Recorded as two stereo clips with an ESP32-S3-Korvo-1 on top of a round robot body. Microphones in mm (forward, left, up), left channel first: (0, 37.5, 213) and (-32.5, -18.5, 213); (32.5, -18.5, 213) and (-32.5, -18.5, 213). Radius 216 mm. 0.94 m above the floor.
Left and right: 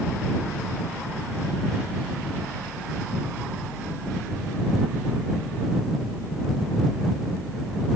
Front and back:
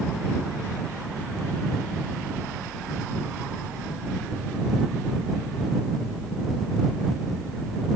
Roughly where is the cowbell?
I don't hear a cowbell.